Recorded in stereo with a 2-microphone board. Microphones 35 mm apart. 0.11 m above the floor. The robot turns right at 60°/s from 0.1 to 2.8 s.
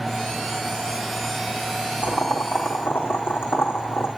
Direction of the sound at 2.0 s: 55° left.